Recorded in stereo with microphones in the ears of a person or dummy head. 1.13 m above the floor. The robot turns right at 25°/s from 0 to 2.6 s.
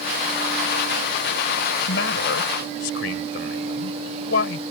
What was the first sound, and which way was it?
A man speaking, 85° left.